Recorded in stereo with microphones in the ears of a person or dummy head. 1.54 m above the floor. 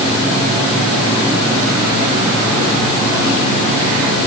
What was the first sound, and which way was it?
Only background noise.